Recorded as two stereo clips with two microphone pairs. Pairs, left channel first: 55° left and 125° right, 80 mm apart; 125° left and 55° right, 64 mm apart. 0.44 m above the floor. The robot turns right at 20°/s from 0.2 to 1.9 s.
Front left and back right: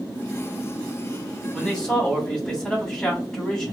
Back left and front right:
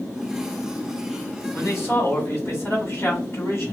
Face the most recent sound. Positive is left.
turn(degrees=125)